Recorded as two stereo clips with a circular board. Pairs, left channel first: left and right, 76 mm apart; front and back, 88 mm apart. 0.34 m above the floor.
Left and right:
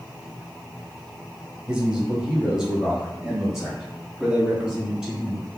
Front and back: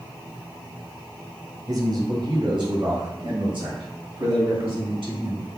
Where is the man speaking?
160° right, 1.3 m; by 5.5 s 175° right, 4 m.